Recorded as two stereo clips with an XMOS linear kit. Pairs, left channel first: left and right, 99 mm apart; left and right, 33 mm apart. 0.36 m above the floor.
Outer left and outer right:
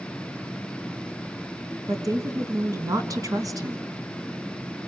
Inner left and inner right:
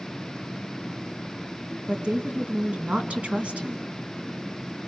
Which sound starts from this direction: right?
A woman speaking, at 1.9 s.